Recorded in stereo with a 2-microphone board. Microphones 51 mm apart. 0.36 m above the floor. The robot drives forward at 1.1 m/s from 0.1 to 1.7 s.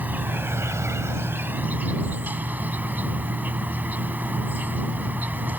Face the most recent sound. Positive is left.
turn(degrees=-35)  # may be behind; listen again after turning